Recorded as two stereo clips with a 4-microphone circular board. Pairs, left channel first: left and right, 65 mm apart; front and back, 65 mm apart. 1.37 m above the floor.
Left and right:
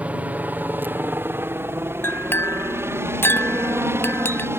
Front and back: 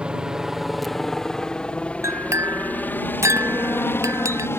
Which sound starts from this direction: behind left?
A clink, at 2.0 s.